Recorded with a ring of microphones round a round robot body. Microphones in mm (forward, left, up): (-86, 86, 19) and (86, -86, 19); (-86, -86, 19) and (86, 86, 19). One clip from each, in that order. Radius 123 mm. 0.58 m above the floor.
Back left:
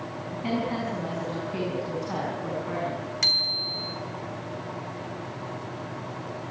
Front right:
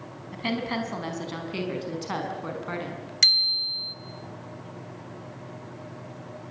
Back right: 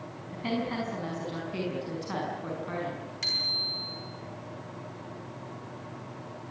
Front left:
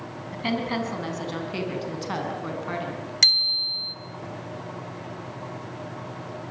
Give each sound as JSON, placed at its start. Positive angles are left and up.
{"t": 0.3, "sound": "a woman speaking", "azimuth_deg": -15, "distance_m": 5.0}
{"t": 3.2, "sound": "a bicycle bell", "azimuth_deg": 15, "distance_m": 2.5}